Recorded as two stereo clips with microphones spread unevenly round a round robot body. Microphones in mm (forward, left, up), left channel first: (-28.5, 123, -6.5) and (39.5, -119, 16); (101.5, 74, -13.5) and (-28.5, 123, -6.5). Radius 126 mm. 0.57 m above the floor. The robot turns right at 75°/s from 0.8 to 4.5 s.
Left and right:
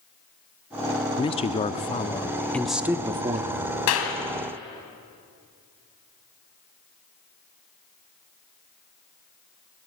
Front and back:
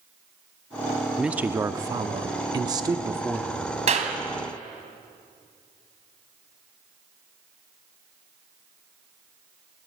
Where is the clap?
130° left, 2.5 m; by 4.2 s 150° left, 2.5 m.